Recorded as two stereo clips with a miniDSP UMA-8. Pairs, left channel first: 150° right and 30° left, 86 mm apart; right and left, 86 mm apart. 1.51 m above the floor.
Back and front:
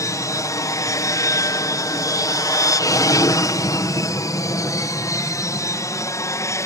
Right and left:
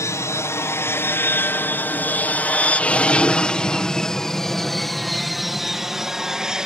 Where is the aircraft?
125° right; by 6.7 s 170° left.